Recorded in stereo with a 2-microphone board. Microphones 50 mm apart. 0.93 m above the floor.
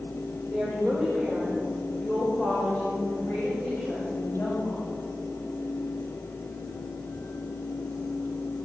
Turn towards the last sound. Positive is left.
turn(degrees=40)  # may be behind; listen again after turning